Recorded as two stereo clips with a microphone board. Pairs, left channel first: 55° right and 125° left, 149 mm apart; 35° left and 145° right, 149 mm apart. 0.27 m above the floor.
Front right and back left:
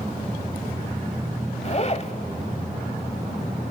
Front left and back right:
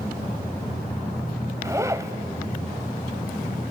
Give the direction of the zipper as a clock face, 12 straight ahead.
3 o'clock.